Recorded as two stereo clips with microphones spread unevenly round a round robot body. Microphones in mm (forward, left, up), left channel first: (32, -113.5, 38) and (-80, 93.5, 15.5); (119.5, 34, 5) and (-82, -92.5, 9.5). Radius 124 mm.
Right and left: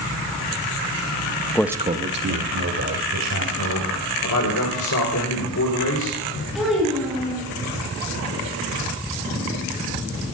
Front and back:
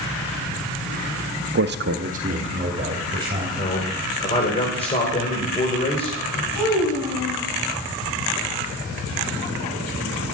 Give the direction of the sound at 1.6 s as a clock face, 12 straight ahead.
5 o'clock.